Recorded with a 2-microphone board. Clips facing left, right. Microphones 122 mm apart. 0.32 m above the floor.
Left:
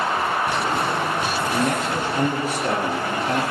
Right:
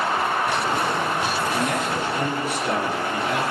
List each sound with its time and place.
1.5 s a man speaking: 45° left (ahead or behind), 6.5 m